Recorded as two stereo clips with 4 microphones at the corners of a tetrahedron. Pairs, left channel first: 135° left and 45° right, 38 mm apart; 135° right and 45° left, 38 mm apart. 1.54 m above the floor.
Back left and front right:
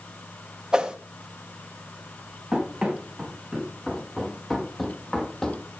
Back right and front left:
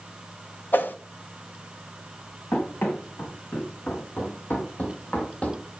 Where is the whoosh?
120° right, 1.1 m.